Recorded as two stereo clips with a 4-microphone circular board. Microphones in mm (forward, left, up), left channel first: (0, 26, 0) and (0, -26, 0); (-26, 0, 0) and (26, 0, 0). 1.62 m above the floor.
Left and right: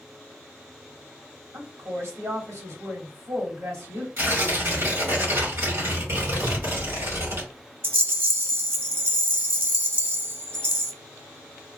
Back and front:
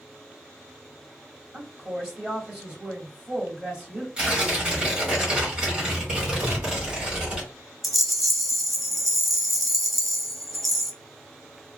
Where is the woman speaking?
75° right, 2.0 m.